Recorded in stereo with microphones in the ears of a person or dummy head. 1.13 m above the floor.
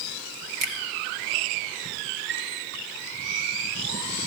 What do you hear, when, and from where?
0.6 s a finger snap: 50° right (ahead or behind), 1.8 m
2.3 s a chime: 5° right (ahead or behind), 4.5 m